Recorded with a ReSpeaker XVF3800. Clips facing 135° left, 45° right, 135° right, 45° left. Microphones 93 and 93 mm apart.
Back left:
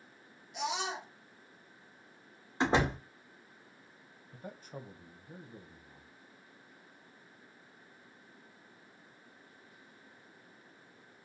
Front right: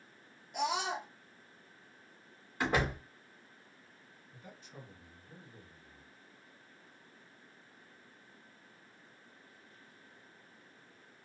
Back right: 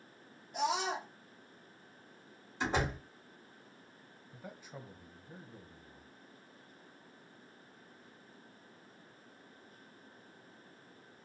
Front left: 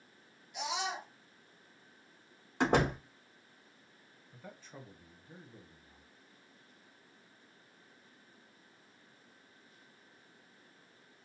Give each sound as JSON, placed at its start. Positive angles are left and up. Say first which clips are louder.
{"t": 0.5, "sound": "a scream", "louder": "front right 2 dB, back right 4 dB", "azimuth_deg": -85, "distance_m": 1.2}
{"t": 2.6, "sound": "a door slam", "louder": "back left 3 dB, front left 5 dB", "azimuth_deg": 70, "distance_m": 0.8}
{"t": 4.3, "sound": "a man speaking", "louder": "back left 7 dB, back right 2 dB", "azimuth_deg": 150, "distance_m": 0.8}